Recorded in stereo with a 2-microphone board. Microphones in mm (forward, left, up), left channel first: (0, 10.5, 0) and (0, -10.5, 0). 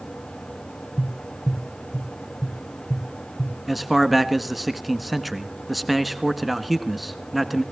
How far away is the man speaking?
About 1.3 m.